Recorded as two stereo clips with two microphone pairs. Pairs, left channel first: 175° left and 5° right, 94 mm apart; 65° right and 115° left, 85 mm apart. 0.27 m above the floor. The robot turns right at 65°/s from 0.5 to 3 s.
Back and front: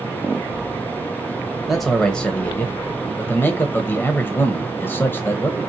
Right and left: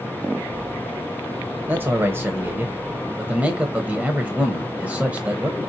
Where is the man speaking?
85° left, 0.9 m; by 5.6 s 170° left, 0.9 m.